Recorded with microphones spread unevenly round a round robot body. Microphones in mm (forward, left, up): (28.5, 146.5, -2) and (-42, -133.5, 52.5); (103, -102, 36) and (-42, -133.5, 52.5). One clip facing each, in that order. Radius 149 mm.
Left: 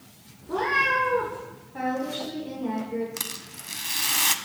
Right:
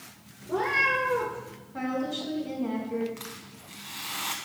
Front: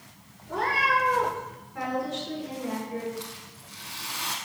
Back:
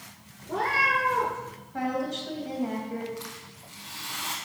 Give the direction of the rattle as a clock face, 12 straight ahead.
9 o'clock.